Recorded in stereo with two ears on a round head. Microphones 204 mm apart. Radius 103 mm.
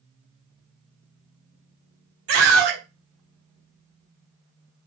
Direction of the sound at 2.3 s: 60° right (ahead or behind).